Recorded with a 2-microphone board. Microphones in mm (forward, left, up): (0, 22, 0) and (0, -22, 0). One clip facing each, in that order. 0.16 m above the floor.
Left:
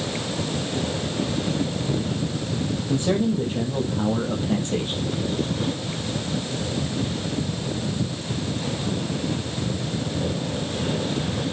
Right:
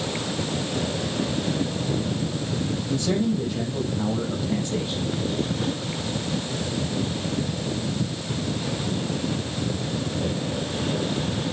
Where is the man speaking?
35° left (ahead or behind), 4.5 m; by 5.0 s 50° left (ahead or behind), 4.5 m.